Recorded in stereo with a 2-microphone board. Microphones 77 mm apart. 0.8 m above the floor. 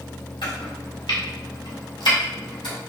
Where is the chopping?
75° left (ahead or behind), 1.4 m.